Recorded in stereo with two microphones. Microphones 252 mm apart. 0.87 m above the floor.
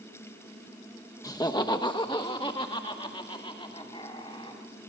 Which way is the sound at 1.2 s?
15° left (ahead or behind).